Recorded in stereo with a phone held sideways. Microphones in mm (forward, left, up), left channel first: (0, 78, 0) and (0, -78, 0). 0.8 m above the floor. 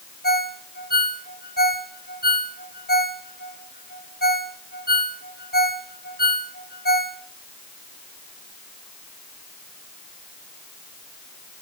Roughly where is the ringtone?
Left.